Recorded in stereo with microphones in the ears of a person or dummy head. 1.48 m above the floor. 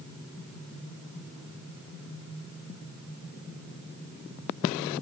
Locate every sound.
Only background noise.